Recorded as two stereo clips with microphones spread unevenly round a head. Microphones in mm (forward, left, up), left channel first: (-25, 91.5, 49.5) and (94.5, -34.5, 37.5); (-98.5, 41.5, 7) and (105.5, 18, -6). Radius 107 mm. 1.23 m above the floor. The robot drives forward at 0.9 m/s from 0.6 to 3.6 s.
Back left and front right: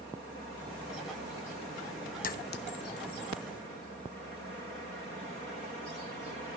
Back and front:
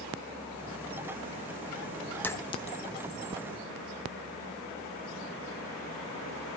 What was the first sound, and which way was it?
A clink, 90° left.